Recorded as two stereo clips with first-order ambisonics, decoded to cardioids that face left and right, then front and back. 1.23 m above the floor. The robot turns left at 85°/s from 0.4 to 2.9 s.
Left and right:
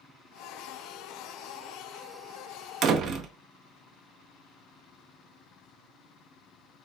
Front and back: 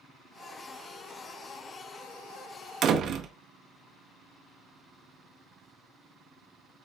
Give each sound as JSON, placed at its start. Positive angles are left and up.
{"t": 2.8, "sound": "a door slam", "azimuth_deg": -130, "distance_m": 0.5}